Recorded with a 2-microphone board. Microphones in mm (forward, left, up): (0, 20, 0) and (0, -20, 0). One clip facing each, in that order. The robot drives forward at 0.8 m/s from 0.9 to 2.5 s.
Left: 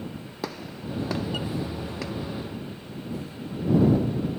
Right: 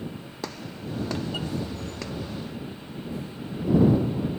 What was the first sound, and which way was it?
A gunshot, 5° left (ahead or behind).